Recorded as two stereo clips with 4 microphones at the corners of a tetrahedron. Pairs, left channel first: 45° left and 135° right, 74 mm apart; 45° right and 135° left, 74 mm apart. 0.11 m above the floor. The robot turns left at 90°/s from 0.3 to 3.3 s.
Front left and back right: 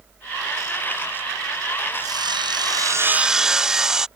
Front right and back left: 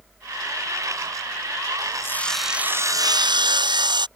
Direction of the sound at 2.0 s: 100° right.